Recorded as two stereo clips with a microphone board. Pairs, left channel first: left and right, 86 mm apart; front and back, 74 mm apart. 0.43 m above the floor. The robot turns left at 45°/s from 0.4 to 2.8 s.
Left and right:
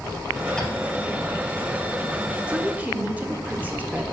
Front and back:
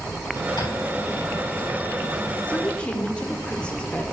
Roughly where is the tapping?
Ahead.